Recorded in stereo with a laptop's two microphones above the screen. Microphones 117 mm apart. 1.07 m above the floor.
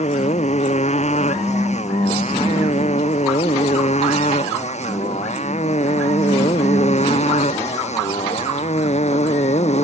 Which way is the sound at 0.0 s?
80° left.